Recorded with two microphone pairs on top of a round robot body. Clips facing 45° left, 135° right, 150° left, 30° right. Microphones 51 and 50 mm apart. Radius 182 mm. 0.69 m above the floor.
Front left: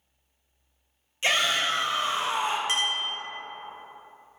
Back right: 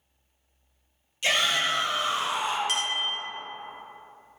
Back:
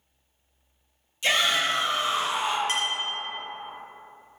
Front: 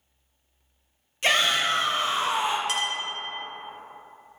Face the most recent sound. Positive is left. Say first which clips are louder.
# front left 1 dB, even
turn(degrees=100)